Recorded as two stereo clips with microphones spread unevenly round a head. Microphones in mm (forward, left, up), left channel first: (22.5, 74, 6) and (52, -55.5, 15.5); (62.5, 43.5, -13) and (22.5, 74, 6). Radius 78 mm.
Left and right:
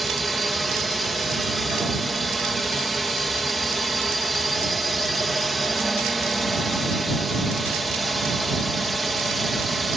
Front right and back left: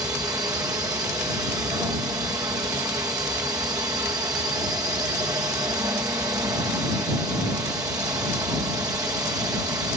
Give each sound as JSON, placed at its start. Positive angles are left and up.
{"t": 0.0, "sound": "a drone", "azimuth_deg": -170}